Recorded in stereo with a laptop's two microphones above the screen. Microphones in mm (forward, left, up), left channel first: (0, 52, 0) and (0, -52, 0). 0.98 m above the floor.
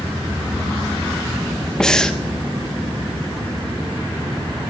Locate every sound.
1.8 s breathing: 5° left (ahead or behind), 0.6 m